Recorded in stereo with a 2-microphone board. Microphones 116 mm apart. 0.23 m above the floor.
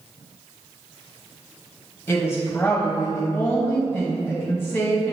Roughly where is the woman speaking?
Centre.